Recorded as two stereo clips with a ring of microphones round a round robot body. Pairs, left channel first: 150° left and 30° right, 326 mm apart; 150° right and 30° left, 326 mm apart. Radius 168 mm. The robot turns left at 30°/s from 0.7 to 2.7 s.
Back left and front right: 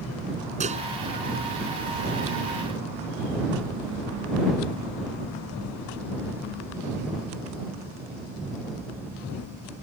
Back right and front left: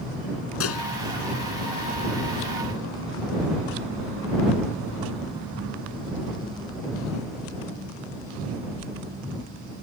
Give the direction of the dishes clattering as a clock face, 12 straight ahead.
3 o'clock.